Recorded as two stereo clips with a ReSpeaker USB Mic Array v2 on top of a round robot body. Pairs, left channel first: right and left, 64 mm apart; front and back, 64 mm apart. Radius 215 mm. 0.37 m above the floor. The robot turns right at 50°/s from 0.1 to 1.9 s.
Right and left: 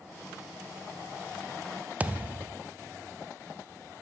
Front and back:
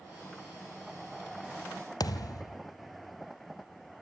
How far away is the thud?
About 1.0 m.